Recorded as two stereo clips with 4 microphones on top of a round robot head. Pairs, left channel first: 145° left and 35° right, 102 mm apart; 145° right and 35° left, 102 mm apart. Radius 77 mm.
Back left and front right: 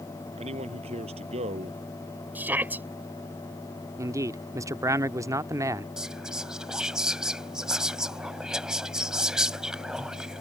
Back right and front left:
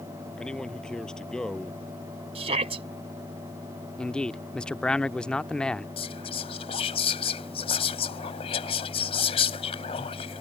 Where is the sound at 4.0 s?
70° right.